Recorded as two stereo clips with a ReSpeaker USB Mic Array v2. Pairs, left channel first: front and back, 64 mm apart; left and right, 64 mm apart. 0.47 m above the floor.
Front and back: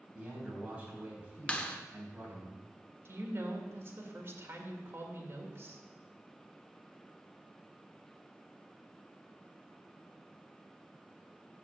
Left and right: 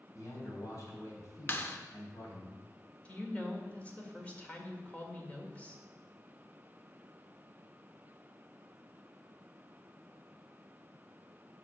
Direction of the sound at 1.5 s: 60° left.